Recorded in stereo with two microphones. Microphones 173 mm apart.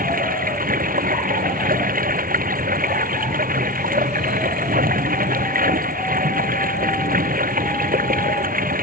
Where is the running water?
55° right (ahead or behind).